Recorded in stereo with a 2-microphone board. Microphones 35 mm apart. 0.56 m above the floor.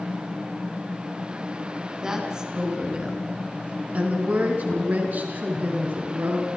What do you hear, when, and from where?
2.0 s a woman speaking: 20° right (ahead or behind), 4 m; by 6.5 s 65° right (ahead or behind), 6.5 m